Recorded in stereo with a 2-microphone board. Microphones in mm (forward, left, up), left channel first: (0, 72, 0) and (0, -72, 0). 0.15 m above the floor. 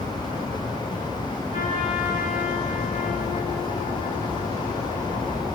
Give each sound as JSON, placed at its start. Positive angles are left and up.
{"t": 1.5, "sound": "a trumpet", "side_deg": 55, "distance_m": 9.5}